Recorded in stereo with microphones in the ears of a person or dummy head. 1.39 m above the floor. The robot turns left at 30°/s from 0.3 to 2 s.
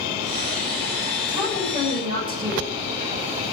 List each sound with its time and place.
1.3 s a woman speaking: 5° right (ahead or behind), 7 m; by 2.7 s 25° right (ahead or behind), 7 m